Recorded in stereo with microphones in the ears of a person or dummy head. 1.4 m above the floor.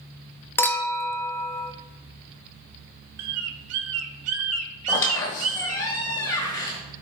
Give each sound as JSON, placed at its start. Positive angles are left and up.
{"t": 0.6, "sound": "a clink", "side_deg": 10, "distance_m": 0.6}
{"t": 3.2, "sound": "a bird", "side_deg": -75, "distance_m": 0.7}
{"t": 4.9, "sound": "a squeak", "side_deg": 10, "distance_m": 1.5}